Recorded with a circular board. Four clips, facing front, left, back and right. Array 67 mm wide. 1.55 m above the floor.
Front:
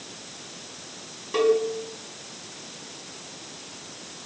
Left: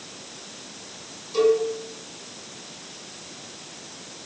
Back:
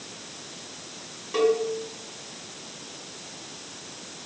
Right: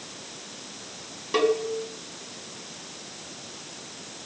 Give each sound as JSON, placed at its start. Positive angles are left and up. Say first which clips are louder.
{"t": 1.3, "sound": "a cowbell", "louder": "left 3 dB, front 2 dB", "azimuth_deg": -80, "distance_m": 3.0}